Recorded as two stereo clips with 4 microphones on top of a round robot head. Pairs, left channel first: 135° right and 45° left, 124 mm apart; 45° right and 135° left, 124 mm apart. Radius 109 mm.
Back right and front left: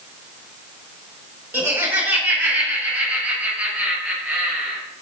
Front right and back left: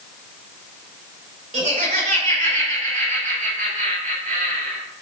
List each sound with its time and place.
1.5 s laughter: 120° left, 4.5 m; by 4.8 s 130° left, 6.5 m